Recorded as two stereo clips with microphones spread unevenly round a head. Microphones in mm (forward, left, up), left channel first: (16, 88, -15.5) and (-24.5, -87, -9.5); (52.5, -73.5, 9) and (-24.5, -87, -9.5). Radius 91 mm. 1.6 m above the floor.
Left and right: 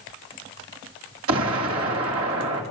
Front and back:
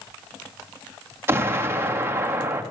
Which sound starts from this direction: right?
An explosion, at 1.3 s.